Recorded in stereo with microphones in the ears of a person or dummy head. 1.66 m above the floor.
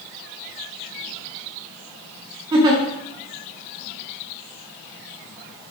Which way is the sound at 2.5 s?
25° right (ahead or behind).